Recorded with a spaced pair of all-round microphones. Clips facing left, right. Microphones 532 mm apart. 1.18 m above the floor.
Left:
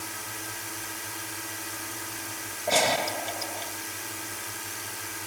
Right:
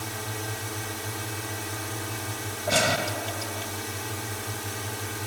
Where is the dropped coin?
I don't hear a dropped coin.